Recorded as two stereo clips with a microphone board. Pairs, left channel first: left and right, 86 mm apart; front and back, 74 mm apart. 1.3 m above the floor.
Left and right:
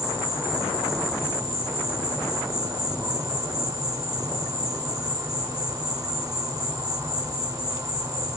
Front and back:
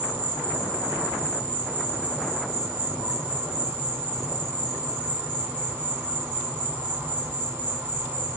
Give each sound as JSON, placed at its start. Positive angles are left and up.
{"t": 0.0, "sound": "an insect", "azimuth_deg": -120, "distance_m": 1.3}